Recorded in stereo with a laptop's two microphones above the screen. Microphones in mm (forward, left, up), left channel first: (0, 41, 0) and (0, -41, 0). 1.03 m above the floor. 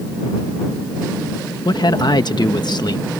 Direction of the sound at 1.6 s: 60° left (ahead or behind).